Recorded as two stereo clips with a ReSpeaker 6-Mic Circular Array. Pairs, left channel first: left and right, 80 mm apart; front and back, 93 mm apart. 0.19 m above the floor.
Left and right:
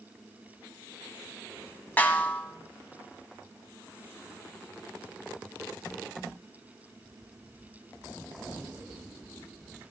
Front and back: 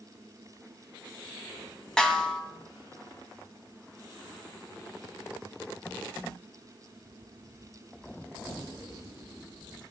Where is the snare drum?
70° left, 0.9 m.